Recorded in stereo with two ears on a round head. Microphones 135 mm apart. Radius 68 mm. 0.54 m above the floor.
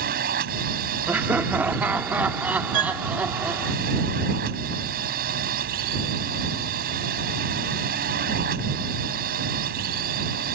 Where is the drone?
70° right (ahead or behind).